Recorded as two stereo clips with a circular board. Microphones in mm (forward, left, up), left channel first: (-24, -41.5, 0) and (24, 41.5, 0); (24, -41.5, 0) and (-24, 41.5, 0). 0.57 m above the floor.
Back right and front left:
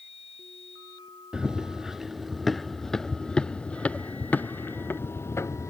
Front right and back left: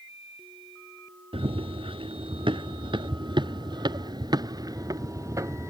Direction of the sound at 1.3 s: 145° left.